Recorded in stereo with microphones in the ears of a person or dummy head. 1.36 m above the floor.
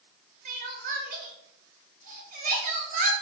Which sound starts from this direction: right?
Crying, at 0.5 s.